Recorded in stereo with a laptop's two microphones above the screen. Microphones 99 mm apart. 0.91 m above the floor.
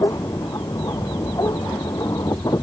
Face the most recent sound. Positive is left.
turn(degrees=35)  # may be behind; listen again after turning